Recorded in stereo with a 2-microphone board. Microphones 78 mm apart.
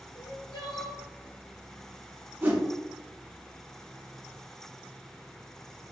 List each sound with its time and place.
0.1 s crying: 80° left, 1.2 m
2.4 s a whoosh: 25° right (ahead or behind), 1.1 m